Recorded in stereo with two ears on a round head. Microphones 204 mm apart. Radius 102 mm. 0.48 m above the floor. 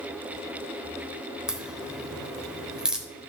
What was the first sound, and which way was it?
A crack, 5° right (ahead or behind).